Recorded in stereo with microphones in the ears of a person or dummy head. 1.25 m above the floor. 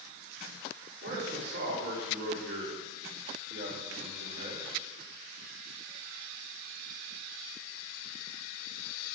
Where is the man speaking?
75° right (ahead or behind), 4 m.